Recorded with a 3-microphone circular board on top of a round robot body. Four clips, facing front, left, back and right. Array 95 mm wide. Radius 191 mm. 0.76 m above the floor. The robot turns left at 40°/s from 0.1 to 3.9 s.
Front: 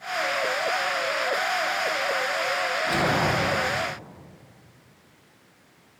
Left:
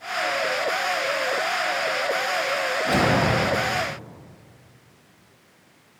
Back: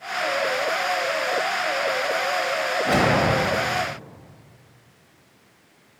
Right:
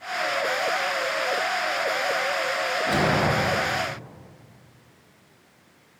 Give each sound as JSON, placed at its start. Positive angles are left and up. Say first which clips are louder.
{"t": 2.9, "sound": "a whoosh", "louder": "left 2 dB, back 5 dB", "azimuth_deg": 180, "distance_m": 1.9}